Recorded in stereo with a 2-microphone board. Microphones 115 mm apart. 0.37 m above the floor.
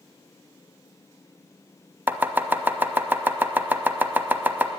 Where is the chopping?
15° right (ahead or behind), 0.5 m.